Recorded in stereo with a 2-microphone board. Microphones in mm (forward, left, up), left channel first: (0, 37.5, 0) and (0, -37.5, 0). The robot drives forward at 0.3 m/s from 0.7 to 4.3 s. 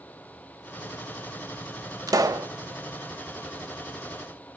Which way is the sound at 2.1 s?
50° right (ahead or behind).